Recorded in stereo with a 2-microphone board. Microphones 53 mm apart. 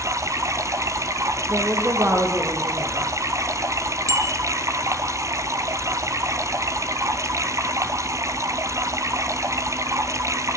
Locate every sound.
0.0 s running water: 75° right (ahead or behind), 1.6 m
1.5 s a woman speaking: 55° right (ahead or behind), 6.5 m
4.1 s a bicycle bell: 80° right, 4.5 m